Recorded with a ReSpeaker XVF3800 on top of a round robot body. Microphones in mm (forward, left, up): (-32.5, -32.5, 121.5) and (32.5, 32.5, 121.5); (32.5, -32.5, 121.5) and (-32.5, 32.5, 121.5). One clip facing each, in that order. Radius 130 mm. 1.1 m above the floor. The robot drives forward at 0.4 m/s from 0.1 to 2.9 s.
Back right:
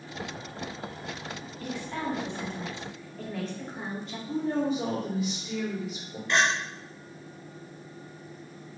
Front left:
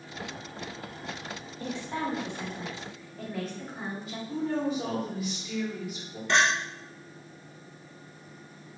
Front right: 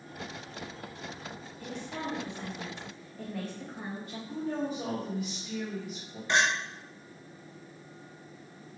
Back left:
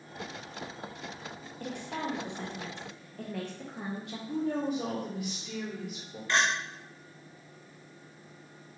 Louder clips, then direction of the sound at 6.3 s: Front left 1 dB, front right 1 dB; 25° left.